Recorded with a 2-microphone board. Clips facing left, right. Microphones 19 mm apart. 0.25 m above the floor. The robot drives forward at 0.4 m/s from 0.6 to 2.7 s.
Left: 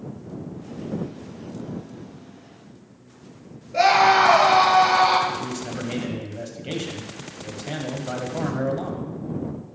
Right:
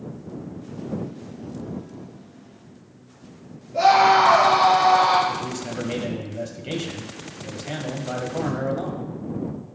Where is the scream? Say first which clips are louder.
Right 1 dB; 45° left (ahead or behind), 4 m.